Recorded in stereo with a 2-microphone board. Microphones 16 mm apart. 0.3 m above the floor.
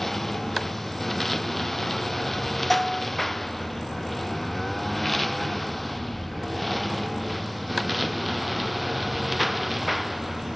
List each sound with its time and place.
0.0 s a lawn mower: 15° left (ahead or behind); by 10.6 s 10° right (ahead or behind)
2.7 s a bell: 5° right (ahead or behind)